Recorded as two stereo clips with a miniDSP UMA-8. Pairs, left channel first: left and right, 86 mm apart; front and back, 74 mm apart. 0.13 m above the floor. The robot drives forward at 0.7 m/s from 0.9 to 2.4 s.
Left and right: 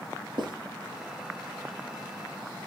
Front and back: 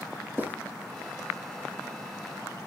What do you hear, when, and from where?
0.4 s writing: 115° right, 4 m